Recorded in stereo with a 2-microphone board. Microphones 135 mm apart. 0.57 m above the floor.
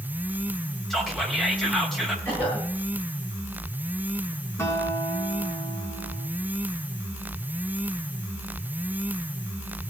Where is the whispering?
Centre (ahead or behind), 3.5 m.